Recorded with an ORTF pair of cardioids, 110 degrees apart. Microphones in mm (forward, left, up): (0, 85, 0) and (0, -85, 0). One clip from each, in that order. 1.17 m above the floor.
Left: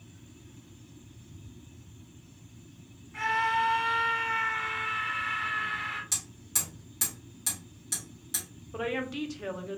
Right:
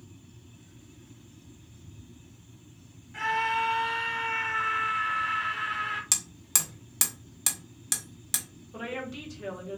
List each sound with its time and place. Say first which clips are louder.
3.1 s a scream: even; 5° right, 1.5 m
6.1 s hammering: right 4 dB; 60° right, 1.0 m
8.7 s a woman speaking: left 4 dB; 20° left, 0.8 m